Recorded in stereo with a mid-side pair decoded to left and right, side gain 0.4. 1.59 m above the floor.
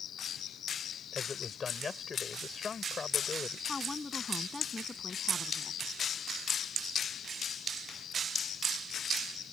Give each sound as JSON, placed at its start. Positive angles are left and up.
{"t": 0.0, "sound": "an insect", "azimuth_deg": 65}
{"t": 1.1, "sound": "a man speaking", "azimuth_deg": 40}
{"t": 3.7, "sound": "a woman speaking", "azimuth_deg": 25}